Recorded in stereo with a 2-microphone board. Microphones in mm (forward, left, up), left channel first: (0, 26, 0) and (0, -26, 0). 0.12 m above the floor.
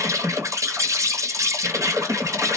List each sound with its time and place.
0.0 s an insect: 75° right (ahead or behind), 1.0 m